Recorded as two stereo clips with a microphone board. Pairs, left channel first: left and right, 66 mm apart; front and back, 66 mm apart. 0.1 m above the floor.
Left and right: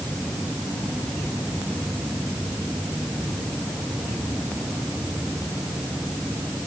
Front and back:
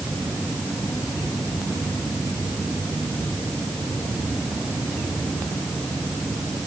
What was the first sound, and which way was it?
Only background noise.